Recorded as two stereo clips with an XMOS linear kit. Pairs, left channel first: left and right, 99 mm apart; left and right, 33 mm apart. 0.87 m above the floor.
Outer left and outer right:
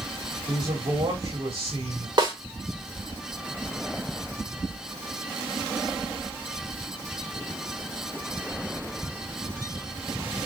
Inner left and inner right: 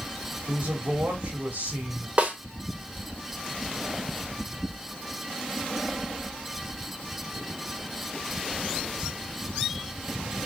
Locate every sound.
0.5 s a man speaking: 70° right (ahead or behind), 2 m
2.2 s a snare drum: 50° right (ahead or behind), 1.4 m